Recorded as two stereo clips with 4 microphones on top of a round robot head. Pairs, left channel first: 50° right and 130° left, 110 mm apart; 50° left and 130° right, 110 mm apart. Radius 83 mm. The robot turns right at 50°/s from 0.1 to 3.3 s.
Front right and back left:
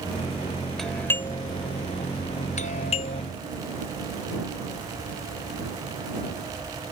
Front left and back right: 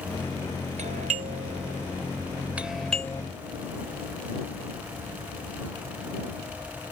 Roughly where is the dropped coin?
I don't hear a dropped coin.